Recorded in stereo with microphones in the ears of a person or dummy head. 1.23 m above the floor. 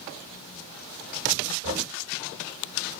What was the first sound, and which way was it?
Knocking, 60° right (ahead or behind).